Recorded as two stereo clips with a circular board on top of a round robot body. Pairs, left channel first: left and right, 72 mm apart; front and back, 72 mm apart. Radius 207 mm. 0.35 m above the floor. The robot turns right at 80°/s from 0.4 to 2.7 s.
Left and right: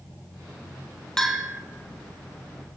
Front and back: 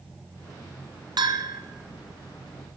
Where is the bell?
175° left, 1.0 m; by 1.6 s 150° right, 1.0 m.